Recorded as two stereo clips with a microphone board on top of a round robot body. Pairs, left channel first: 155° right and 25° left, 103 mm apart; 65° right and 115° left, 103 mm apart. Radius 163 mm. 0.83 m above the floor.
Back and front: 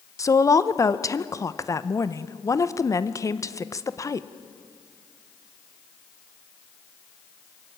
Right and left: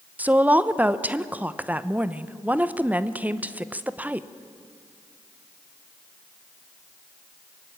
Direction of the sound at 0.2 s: 175° left.